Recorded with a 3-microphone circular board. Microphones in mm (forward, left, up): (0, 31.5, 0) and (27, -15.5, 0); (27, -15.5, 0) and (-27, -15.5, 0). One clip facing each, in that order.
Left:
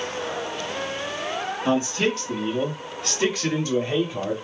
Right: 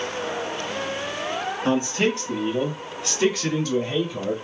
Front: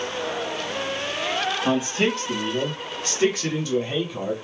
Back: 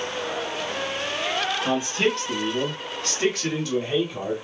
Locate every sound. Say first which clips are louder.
1.6 s a man speaking: even, front 2 dB; 80° right, 1.7 m; by 4.3 s 105° left, 1.5 m